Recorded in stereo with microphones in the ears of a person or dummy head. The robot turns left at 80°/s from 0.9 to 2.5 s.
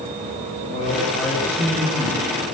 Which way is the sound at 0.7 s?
35° left.